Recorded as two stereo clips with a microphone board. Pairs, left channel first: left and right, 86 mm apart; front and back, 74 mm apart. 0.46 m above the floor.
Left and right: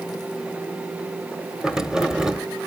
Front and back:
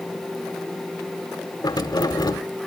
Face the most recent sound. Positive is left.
turn(degrees=-10)